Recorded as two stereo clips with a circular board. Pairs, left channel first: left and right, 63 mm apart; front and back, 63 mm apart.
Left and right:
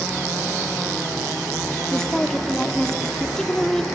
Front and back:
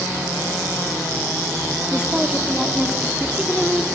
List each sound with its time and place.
1.9 s a woman speaking: 150° left, 1.1 m